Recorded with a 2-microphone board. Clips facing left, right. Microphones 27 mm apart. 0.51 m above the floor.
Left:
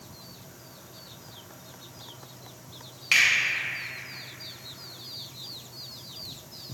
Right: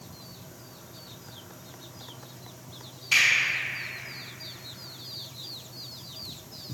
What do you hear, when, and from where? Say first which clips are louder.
3.1 s a finger snap: left 1 dB; 65° left (ahead or behind), 1.5 m